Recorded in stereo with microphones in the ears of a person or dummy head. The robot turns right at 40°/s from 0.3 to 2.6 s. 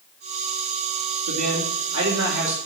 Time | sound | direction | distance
1.3 | a man speaking | 90° right | 2.5 m